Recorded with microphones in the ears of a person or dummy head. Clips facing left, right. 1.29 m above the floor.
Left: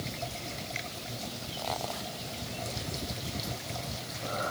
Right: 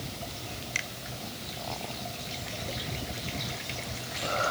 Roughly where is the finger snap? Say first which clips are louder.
Left 1 dB; right.